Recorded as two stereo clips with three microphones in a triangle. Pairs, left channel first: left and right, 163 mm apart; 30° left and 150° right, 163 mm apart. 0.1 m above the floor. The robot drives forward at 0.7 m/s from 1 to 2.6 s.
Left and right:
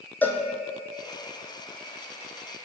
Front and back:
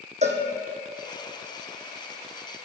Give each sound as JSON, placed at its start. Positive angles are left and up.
{"t": 0.2, "sound": "a cowbell", "azimuth_deg": 170, "distance_m": 1.1}